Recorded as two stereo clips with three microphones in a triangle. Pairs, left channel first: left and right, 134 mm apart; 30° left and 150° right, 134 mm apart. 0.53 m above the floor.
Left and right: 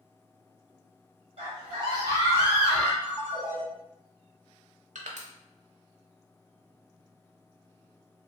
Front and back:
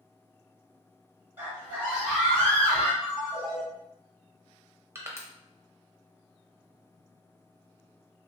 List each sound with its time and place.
1.4 s a scream: 80° right, 1.9 m; by 2.9 s 20° left, 1.3 m
3.0 s a ringtone: 70° right, 1.7 m
5.0 s crushing: 80° right, 0.5 m